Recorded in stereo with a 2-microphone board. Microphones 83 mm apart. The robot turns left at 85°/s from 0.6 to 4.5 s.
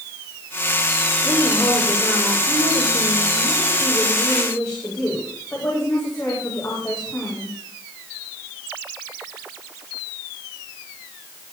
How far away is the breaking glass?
I don't hear breaking glass.